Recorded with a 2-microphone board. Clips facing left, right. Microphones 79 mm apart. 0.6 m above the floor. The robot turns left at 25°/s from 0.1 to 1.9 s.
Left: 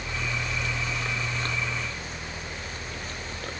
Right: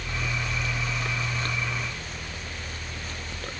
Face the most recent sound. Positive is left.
No sound to turn to.